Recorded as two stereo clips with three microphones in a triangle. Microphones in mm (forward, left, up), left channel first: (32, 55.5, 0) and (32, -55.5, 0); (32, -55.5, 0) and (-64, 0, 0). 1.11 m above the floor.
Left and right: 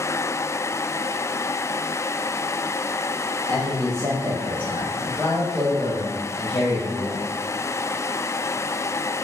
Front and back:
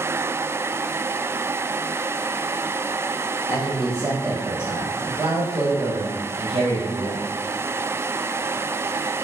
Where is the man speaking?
140° right, 1.6 m; by 7.2 s 155° left, 2 m.